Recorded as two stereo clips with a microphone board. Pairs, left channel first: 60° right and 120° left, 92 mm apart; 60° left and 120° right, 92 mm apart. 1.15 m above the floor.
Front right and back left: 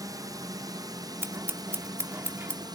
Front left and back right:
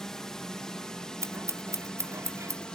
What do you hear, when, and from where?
0.0 s a drone: 140° left
1.2 s scissors: straight behind